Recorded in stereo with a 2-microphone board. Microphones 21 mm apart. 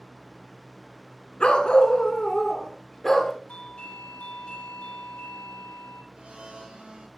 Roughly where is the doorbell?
Left.